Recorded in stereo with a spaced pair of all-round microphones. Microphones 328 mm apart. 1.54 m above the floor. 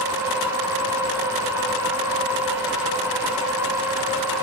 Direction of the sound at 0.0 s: 10° right (ahead or behind).